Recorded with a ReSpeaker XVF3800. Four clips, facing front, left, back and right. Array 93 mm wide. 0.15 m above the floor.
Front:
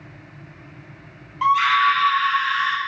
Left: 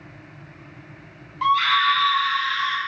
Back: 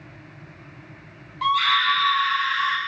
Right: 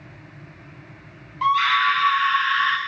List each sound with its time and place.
1.4 s a scream: 5° right, 1.2 m; by 2.8 s 65° right, 1.6 m